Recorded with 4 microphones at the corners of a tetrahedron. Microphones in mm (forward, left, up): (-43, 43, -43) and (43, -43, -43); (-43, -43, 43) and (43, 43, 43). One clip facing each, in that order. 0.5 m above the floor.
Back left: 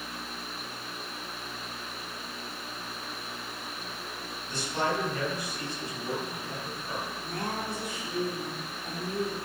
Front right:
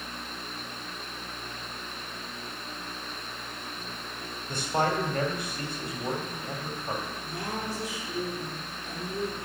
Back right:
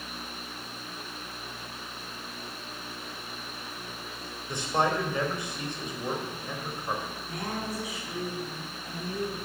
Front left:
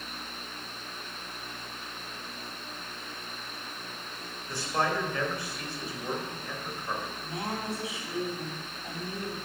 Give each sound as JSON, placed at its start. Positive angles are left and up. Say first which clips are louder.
{"t": 4.5, "sound": "a man speaking", "louder": "front right 3 dB, back right 2 dB", "azimuth_deg": -65, "distance_m": 3.0}
{"t": 7.2, "sound": "a woman speaking", "louder": "back left 1 dB, even", "azimuth_deg": 105, "distance_m": 4.0}